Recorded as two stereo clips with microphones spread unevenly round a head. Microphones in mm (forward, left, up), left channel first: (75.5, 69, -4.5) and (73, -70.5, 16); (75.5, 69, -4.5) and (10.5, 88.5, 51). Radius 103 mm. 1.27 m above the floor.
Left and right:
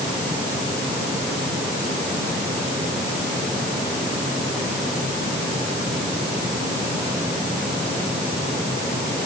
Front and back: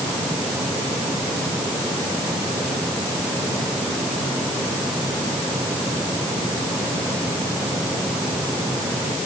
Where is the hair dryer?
I don't hear a hair dryer.